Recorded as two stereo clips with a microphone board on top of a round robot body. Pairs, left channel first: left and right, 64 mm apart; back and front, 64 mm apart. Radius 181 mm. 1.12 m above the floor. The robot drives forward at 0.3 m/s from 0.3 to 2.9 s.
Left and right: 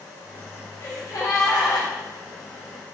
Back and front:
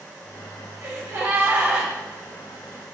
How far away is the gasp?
About 0.7 m.